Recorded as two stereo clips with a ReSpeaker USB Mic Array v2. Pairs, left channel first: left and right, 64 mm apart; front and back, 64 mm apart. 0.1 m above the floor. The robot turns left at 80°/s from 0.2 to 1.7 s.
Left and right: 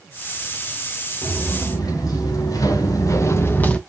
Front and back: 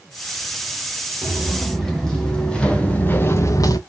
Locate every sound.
1.2 s footsteps: 130° left, 3.5 m; by 3.8 s 15° left, 0.8 m